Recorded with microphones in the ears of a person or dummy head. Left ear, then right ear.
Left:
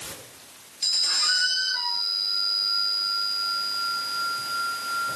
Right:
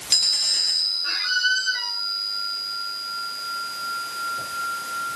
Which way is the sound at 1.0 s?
45° right (ahead or behind).